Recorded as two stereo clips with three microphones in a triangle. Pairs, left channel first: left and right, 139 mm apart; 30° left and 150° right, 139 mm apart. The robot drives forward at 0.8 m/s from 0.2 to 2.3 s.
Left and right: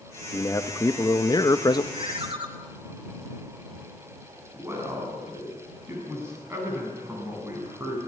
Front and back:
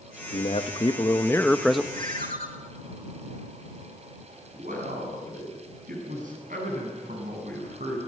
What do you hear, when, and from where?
0.3 s a man speaking: 30° left, 1.3 m; by 1.8 s 125° left, 1.0 m
1.9 s a ringtone: 140° right, 2.5 m; by 2.5 s 145° right, 2.5 m
4.5 s a man speaking: 160° right, 8 m